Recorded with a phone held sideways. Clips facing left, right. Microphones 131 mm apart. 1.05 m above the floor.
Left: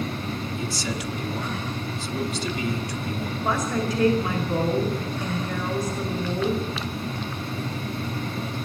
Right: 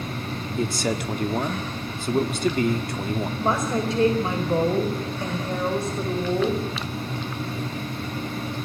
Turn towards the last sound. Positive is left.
turn(degrees=-30)  # may be behind; listen again after turning